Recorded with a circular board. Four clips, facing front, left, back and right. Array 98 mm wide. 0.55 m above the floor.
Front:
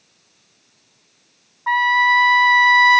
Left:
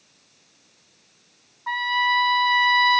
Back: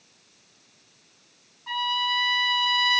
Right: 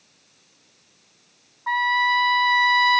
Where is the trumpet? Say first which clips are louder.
Right 2 dB, front 12 dB; 10° right, 0.6 m.